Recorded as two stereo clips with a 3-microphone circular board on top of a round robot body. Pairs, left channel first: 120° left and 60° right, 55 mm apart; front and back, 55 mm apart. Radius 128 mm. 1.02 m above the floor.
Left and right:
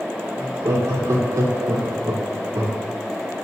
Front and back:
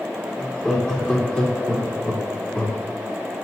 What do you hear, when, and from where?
0.4 s laughter: 75° right, 3.5 m; by 2.8 s 70° right, 2.5 m